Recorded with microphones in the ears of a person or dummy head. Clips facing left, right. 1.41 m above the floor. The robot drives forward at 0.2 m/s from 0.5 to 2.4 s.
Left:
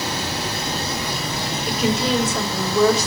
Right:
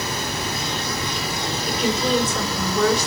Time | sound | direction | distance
0.0 | running water | 25° left (ahead or behind) | 3 m
1.7 | a woman speaking | 65° left (ahead or behind) | 5.5 m